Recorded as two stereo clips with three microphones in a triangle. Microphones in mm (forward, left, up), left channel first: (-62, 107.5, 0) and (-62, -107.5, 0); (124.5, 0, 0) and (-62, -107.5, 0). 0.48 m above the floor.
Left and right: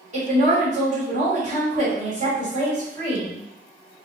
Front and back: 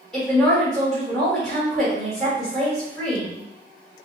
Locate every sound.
0.1 s a woman speaking: 55° right, 1.7 m